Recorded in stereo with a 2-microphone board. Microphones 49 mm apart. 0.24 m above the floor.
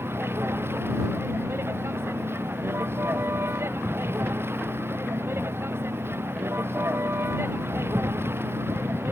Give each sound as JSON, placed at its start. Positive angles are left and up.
{"t": 0.0, "sound": "a vehicle", "side_deg": -55}